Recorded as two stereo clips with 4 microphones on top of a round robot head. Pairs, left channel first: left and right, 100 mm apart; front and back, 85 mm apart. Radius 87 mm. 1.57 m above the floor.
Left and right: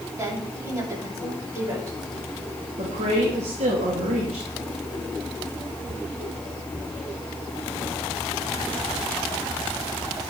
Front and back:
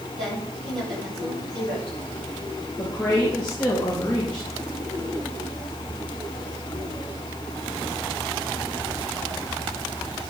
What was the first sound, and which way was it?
A woman speaking, 150° right.